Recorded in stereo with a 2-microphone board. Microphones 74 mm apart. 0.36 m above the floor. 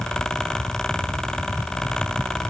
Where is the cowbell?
No cowbell in this recording.